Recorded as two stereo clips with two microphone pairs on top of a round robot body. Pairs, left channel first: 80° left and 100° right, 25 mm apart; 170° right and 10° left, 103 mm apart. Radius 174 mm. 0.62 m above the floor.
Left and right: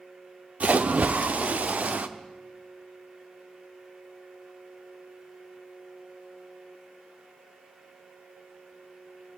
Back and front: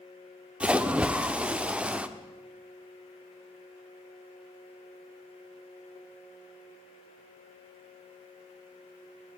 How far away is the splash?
About 1.1 m.